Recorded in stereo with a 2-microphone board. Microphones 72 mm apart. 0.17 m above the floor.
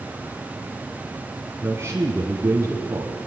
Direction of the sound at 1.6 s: 40° right (ahead or behind).